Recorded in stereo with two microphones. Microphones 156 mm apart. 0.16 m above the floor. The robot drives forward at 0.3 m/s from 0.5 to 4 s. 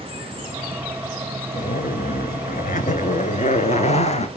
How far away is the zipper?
About 0.8 m.